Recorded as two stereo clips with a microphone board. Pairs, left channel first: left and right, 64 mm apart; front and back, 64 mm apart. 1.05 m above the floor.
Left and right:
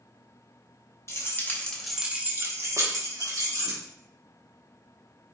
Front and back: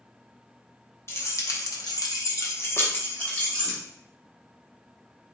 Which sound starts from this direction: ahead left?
Keys jangling, at 1.1 s.